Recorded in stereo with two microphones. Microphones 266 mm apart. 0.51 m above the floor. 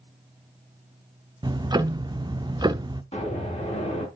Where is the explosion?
25° left (ahead or behind), 4 m.